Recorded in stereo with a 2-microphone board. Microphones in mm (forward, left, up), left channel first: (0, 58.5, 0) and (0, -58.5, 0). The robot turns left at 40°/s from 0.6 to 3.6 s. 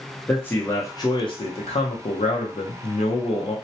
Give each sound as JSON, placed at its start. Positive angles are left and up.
{"t": 0.3, "sound": "a man speaking", "azimuth_deg": 165, "distance_m": 0.7}